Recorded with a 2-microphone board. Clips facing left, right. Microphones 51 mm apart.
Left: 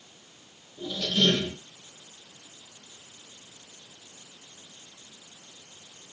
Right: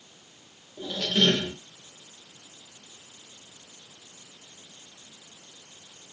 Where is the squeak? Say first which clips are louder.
Right 1 dB; 55° right (ahead or behind), 1.0 m.